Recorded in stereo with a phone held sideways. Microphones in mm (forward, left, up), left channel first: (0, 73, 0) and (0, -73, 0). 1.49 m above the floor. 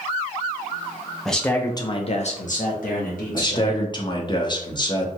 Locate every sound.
1.2 s a man speaking: centre (ahead or behind), 0.7 m; by 3.9 s 70° left (ahead or behind), 1.3 m
3.3 s a man speaking: 30° left (ahead or behind), 0.7 m